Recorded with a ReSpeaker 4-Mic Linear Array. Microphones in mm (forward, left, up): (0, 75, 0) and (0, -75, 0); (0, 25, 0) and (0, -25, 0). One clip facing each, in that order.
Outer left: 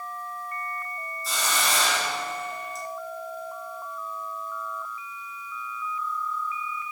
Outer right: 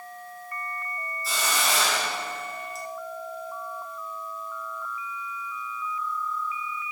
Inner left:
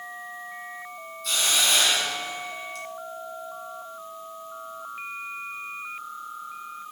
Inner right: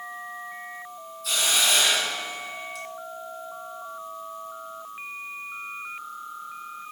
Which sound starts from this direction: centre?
A hiss, at 1.2 s.